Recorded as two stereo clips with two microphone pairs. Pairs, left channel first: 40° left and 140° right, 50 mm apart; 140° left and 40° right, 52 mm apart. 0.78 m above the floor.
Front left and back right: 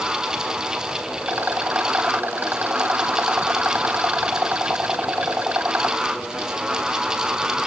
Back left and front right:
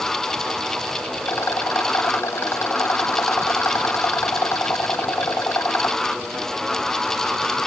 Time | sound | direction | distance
1.2 | a rattle | 170° left | ?